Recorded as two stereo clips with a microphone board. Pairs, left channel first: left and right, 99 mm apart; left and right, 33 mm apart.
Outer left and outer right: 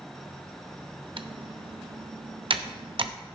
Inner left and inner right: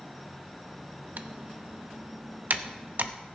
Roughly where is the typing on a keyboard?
Right.